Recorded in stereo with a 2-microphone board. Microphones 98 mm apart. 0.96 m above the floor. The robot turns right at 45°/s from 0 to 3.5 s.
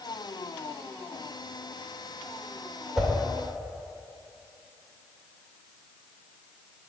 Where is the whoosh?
5° right (ahead or behind), 1.9 m; by 3.1 s centre (ahead or behind), 1.9 m.